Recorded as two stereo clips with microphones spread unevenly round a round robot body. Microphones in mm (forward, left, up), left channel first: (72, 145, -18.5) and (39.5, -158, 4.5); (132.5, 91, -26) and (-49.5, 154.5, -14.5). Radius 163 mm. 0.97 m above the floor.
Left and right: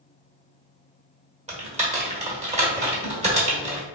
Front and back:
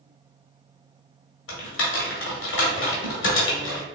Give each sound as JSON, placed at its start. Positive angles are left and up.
{"t": 1.5, "sound": "typing on a keyboard", "azimuth_deg": -30, "distance_m": 1.4}